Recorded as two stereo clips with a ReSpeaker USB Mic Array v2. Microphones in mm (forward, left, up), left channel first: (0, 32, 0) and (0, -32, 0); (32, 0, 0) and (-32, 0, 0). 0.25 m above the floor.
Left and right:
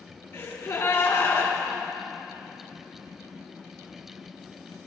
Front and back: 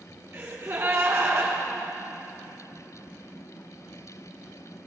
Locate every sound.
0.3 s a gasp: 140° left, 3 m